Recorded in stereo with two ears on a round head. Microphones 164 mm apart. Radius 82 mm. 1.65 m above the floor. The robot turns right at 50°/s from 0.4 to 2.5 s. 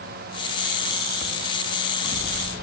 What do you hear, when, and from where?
Only background noise.